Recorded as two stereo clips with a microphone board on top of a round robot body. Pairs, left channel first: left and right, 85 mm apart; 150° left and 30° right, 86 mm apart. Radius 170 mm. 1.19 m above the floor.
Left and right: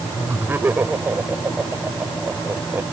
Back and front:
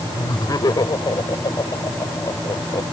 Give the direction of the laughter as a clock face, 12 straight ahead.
5 o'clock.